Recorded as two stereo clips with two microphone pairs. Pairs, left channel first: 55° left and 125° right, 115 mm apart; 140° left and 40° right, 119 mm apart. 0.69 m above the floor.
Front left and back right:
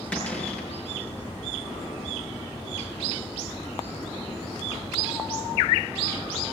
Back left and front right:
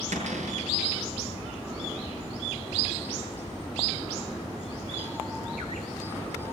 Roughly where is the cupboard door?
Ahead right.